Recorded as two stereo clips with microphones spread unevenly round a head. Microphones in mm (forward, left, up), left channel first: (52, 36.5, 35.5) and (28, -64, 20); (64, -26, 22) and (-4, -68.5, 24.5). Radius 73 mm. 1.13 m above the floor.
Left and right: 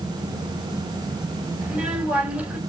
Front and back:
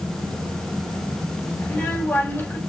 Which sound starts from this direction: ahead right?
A child speaking, at 1.6 s.